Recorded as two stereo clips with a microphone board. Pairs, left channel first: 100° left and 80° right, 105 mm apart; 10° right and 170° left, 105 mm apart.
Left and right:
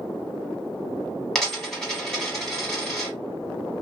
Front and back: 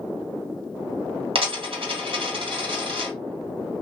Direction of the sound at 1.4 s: 175° right.